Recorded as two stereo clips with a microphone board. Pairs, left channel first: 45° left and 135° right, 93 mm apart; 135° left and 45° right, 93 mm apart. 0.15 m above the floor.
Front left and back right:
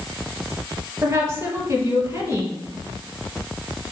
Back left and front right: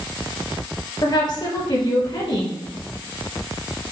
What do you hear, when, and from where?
1.0 s a woman speaking: 170° left, 3.5 m